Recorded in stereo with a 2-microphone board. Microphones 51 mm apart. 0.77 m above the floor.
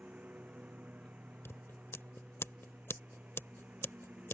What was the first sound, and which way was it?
A lawn mower, 30° right (ahead or behind).